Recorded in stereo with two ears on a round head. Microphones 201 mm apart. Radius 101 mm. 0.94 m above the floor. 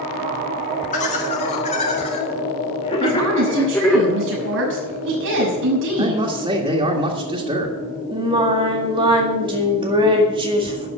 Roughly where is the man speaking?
Right.